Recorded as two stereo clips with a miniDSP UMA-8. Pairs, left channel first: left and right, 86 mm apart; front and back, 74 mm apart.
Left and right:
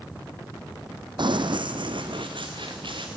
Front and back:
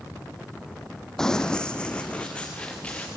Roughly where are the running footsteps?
Right.